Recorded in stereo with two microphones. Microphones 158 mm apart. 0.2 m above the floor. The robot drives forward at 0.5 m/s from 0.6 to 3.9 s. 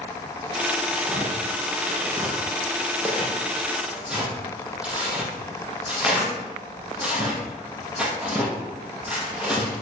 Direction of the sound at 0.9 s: 10° right (ahead or behind).